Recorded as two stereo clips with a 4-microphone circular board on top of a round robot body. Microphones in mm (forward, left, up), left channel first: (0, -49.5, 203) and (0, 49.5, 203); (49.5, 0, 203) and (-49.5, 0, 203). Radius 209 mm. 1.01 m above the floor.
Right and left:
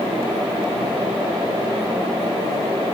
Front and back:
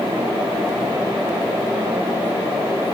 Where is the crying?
No crying in this recording.